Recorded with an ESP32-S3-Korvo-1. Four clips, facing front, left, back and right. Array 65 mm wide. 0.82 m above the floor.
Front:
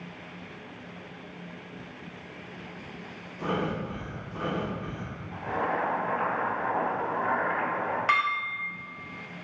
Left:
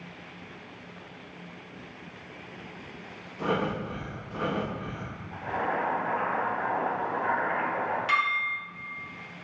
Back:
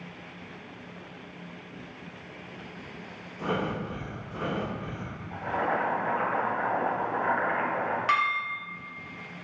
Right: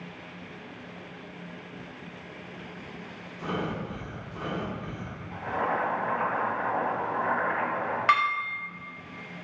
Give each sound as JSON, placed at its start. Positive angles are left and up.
{"t": 3.4, "sound": "breathing", "azimuth_deg": 100, "distance_m": 0.6}
{"t": 5.3, "sound": "boiling", "azimuth_deg": -170, "distance_m": 1.6}
{"t": 8.1, "sound": "dishes clattering", "azimuth_deg": -90, "distance_m": 1.0}